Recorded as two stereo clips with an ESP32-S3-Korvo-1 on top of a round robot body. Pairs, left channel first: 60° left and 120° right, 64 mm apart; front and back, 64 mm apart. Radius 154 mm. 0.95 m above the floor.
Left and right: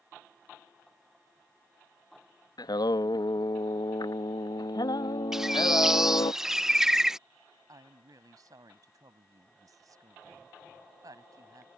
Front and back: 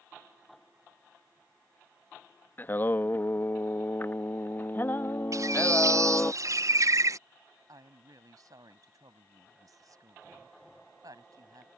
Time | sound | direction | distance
2.6 | singing | 60° left | ?
5.3 | a bird | 160° left | ?
7.7 | a woman speaking | 150° right | ?